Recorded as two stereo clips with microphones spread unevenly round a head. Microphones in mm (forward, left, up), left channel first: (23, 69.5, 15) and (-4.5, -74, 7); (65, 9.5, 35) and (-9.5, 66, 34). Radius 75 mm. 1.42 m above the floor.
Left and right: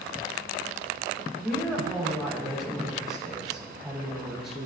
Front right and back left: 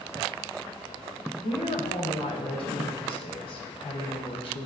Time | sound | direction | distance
1.4 | a woman speaking | 10° right | 1.5 m